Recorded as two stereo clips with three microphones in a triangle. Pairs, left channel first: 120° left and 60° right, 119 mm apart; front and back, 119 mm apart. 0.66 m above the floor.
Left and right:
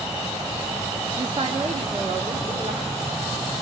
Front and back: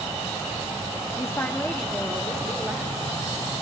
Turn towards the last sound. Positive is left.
turn(degrees=-100)